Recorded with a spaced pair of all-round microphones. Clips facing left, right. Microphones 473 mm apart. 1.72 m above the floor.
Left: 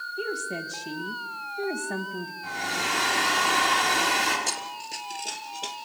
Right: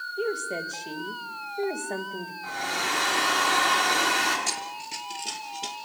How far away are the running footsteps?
About 1.9 m.